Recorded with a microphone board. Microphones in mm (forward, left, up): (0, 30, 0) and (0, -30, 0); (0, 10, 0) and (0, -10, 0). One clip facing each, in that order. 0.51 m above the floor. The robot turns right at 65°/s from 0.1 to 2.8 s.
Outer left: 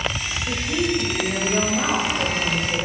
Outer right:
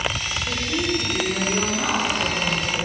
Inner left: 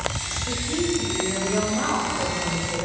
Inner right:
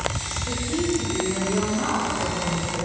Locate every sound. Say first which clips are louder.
0.5 s a woman speaking: outer left 2 dB, even; straight ahead, 3 m; by 2.9 s 150° left, 3 m